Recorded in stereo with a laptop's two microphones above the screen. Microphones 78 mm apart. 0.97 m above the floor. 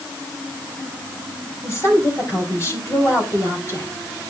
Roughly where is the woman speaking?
Left.